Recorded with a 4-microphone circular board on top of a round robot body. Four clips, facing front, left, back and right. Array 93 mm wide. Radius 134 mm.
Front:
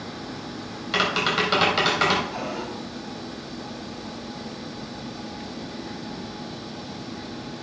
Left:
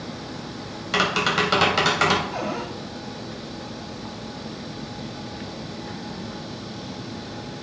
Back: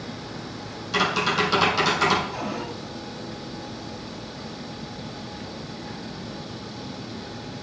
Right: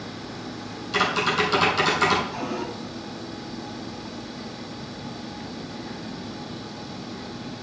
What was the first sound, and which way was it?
Tapping, 60° left.